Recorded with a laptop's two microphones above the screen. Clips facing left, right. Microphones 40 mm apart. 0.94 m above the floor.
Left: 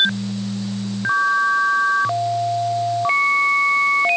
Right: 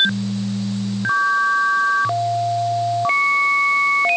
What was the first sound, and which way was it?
Only background noise.